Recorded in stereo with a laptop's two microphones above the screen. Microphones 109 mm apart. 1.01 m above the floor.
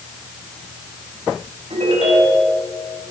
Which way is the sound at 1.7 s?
75° right (ahead or behind).